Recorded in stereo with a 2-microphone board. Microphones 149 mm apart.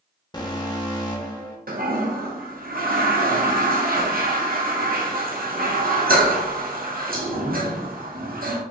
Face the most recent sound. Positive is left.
turn(degrees=-80)